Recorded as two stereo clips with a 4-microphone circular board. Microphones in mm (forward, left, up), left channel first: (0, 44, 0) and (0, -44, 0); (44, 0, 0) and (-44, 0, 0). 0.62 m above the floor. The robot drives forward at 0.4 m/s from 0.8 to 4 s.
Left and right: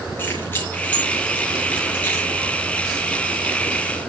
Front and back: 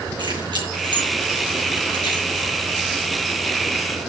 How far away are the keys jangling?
About 6 m.